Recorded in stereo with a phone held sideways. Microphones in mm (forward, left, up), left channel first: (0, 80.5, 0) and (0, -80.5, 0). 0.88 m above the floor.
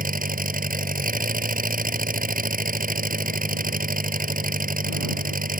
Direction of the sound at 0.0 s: 60° right (ahead or behind).